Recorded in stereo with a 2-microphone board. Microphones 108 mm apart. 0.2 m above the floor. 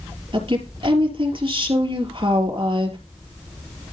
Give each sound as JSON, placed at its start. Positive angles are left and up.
{"t": 0.3, "sound": "a woman speaking", "side_deg": -50, "distance_m": 3.5}